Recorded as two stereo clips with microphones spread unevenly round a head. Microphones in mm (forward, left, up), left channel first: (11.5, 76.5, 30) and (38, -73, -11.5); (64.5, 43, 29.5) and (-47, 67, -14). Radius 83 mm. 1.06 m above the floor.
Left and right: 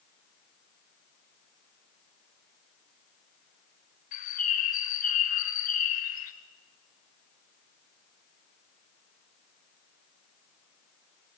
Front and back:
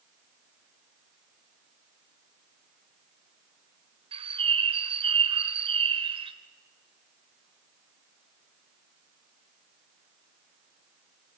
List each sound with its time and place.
4.1 s a bird: 120° left, 1.3 m